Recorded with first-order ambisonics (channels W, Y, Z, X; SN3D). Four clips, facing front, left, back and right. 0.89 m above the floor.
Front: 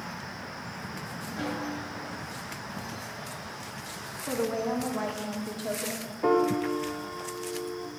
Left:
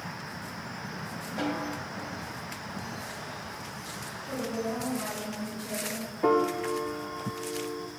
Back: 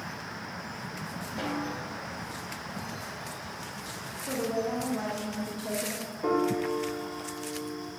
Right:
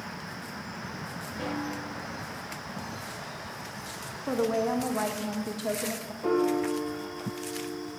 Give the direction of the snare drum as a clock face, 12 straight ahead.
8 o'clock.